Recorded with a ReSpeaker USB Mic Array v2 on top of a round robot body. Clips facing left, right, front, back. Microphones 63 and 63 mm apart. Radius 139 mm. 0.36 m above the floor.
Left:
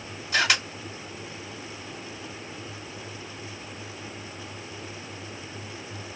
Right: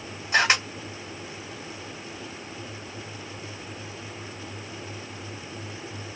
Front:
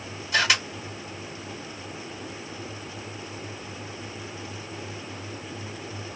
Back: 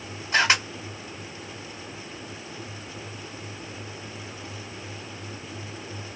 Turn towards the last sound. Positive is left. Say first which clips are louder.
# right 3 dB, back 2 dB
turn(degrees=-135)